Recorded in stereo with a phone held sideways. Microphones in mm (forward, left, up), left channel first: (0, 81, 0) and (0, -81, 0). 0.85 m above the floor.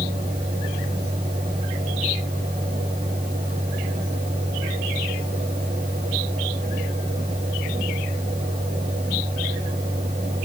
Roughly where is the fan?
Right.